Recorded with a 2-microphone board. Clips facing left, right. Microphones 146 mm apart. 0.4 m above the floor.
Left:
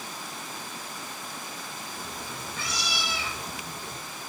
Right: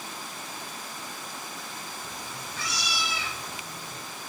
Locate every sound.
1.9 s a cat meowing: 55° left (ahead or behind), 4 m